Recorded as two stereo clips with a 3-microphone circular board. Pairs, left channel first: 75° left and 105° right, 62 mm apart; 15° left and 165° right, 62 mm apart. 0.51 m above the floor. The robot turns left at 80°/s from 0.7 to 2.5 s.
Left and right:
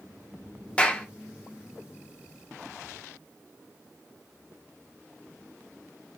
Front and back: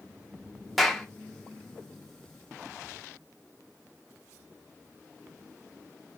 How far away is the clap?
About 0.5 m.